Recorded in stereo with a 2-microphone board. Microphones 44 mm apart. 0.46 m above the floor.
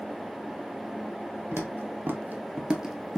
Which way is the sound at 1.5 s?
65° right (ahead or behind).